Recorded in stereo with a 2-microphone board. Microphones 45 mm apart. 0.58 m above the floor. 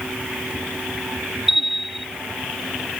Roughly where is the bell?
Centre.